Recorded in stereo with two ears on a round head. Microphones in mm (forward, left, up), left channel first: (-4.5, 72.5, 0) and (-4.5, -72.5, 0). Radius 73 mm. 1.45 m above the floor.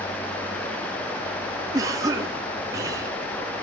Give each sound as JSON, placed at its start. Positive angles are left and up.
{"t": 1.7, "sound": "a cough", "side_deg": -20, "distance_m": 3.5}